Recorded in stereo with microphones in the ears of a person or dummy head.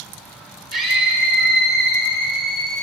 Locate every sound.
0.7 s a scream: 55° right (ahead or behind), 5.5 m